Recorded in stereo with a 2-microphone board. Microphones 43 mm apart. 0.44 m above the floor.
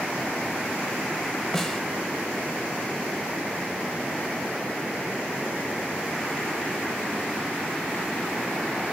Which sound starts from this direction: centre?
A snare drum, at 1.5 s.